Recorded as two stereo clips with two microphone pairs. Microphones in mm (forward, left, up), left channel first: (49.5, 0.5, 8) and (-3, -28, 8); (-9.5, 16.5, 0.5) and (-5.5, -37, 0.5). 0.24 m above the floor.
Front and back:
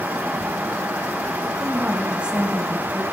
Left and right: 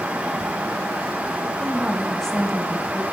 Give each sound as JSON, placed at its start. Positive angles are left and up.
{"t": 1.6, "sound": "a woman speaking", "azimuth_deg": 165, "distance_m": 1.1}